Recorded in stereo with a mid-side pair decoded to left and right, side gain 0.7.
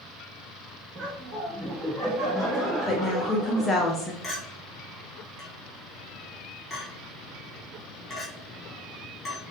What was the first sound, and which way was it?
Laughter, 30° right.